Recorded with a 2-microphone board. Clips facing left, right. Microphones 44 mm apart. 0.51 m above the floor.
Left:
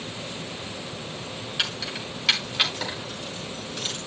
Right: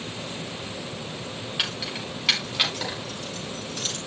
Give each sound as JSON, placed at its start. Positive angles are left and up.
{"t": 1.6, "sound": "keys jangling", "side_deg": -10, "distance_m": 3.5}